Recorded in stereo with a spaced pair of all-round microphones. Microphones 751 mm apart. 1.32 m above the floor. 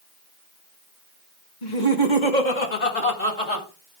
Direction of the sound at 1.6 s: 85° left.